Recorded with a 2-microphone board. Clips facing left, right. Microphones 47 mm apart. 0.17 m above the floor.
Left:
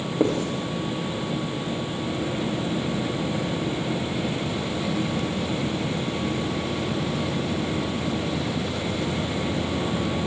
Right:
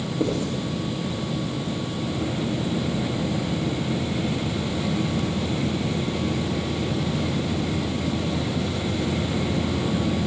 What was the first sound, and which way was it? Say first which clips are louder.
Writing: left 3 dB; 40° left (ahead or behind).